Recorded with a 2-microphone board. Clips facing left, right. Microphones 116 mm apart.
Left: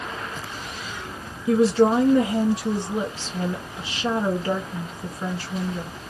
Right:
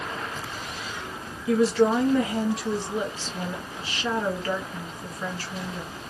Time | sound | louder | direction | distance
1.5 | a woman speaking | left 3 dB | 25° left (ahead or behind) | 1.5 m